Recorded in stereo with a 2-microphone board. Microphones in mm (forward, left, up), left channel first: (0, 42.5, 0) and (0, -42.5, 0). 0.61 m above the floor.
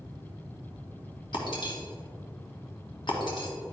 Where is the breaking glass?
65° left (ahead or behind), 1.6 m.